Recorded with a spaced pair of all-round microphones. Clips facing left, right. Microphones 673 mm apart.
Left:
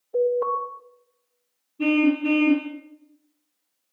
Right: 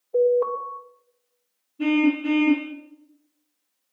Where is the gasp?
I don't hear a gasp.